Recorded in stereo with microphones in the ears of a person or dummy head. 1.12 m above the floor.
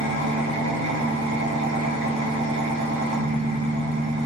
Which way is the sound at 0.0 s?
55° right (ahead or behind).